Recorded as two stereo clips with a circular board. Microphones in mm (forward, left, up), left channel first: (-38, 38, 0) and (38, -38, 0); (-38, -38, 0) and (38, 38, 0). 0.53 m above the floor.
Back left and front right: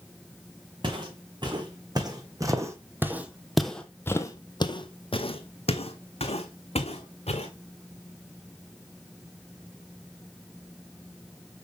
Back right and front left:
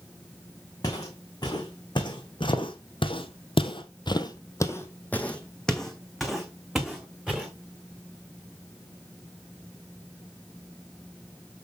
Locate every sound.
0.8 s footsteps: 85° right, 2 m; by 7.5 s 130° left, 2.5 m